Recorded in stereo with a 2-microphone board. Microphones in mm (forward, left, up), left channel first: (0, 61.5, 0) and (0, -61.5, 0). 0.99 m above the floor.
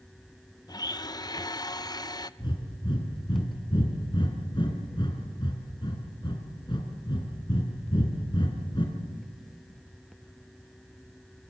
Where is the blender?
35° left (ahead or behind), 0.6 m.